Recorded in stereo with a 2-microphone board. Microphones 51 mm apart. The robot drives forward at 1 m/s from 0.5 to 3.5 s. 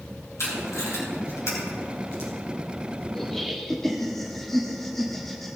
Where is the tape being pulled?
75° left (ahead or behind), 3.5 m; by 2.3 s 50° left (ahead or behind), 4.5 m.